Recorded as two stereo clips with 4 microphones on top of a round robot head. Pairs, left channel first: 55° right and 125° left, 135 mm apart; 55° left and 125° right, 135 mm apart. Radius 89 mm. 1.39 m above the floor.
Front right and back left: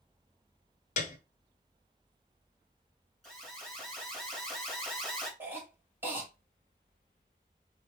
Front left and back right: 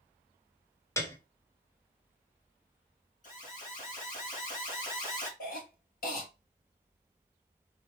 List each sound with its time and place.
1.0 s a piano: 20° right, 0.8 m
3.2 s an alarm: 35° left, 2.5 m
5.4 s a cough: 50° left, 2.0 m